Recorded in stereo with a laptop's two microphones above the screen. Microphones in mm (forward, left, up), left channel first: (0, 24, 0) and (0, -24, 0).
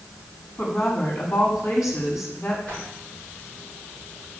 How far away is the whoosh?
About 3.5 m.